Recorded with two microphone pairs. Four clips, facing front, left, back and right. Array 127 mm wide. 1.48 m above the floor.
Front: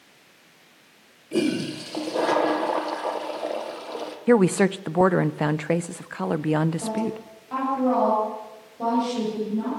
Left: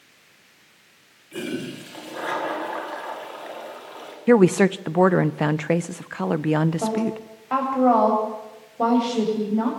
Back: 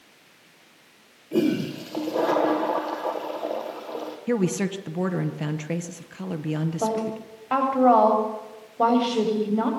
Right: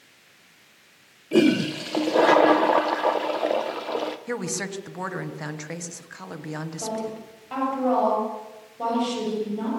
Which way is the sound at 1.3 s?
85° right.